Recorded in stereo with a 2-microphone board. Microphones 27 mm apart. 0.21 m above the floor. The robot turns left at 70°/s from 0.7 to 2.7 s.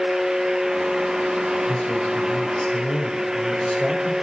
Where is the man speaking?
130° left, 6.5 m; by 4.1 s 55° left, 6.5 m.